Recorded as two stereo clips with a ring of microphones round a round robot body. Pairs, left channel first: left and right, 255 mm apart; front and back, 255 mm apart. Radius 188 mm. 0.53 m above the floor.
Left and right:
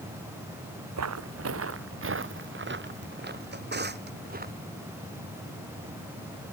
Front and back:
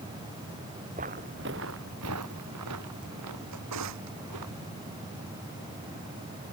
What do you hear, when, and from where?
1.0 s footsteps: 110° right; by 4.5 s 145° right
3.5 s a drawer: 140° right